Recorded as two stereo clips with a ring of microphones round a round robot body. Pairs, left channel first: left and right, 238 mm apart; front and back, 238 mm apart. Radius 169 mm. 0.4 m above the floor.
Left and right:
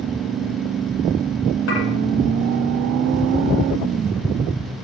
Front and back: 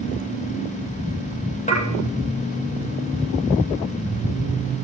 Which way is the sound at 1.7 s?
60° left.